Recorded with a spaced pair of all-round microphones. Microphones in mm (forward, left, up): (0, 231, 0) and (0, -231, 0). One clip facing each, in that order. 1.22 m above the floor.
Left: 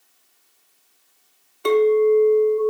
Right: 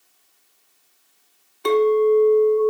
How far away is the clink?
About 0.7 m.